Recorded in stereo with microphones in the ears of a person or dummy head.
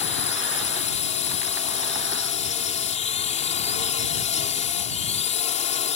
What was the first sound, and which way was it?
A drone, 35° left (ahead or behind).